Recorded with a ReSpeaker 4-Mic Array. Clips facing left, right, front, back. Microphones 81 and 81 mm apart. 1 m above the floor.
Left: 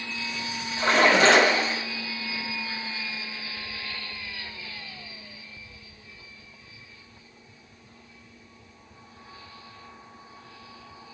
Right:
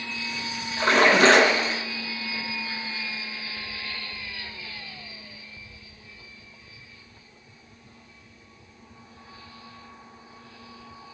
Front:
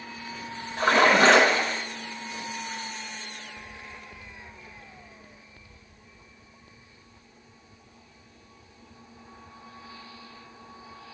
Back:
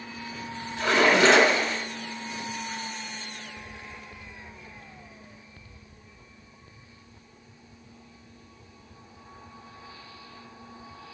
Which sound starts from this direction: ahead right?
A splash, at 0.8 s.